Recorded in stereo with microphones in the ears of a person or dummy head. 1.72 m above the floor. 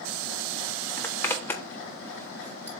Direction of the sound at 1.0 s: 10° left (ahead or behind).